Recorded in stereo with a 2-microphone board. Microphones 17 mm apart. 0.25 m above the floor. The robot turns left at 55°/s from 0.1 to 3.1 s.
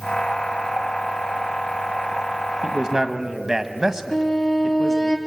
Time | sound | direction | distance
2.6 | a man speaking | 40° right (ahead or behind) | 1.3 m
4.1 | a violin | 35° left (ahead or behind) | 2.5 m